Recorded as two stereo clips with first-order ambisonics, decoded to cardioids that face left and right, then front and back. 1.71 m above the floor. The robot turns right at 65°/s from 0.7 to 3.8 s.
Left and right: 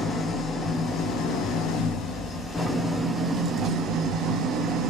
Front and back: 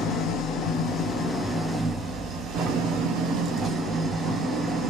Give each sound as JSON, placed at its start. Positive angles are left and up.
{"t": 0.0, "sound": "an engine running", "azimuth_deg": 35, "distance_m": 0.7}